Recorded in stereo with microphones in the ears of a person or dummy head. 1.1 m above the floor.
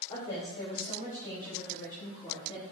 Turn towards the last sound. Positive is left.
turn(degrees=30)  # may be behind; listen again after turning